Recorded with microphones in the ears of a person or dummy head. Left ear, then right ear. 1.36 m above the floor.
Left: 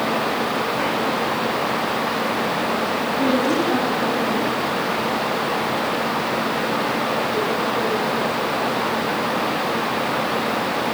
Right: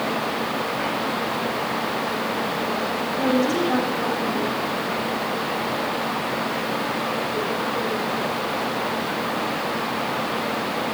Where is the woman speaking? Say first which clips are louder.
Left 1 dB; 20° right (ahead or behind), 9 m.